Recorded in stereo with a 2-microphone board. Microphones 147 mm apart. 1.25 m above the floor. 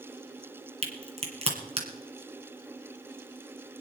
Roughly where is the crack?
Right.